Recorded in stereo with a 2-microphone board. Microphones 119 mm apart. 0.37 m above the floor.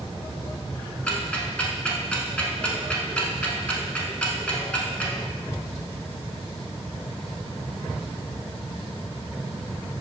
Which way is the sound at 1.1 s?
10° left (ahead or behind).